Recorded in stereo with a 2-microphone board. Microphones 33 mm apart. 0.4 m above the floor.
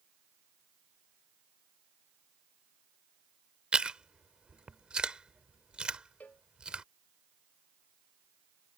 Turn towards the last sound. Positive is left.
turn(degrees=55)  # may be behind; listen again after turning